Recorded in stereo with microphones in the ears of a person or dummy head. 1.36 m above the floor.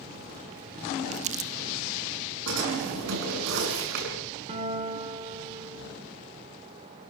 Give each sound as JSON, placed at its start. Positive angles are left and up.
{"t": 1.1, "sound": "crumpling", "side_deg": -30, "distance_m": 0.9}
{"t": 2.5, "sound": "a drawer", "side_deg": -65, "distance_m": 7.5}
{"t": 4.5, "sound": "a guitar", "side_deg": -30, "distance_m": 3.5}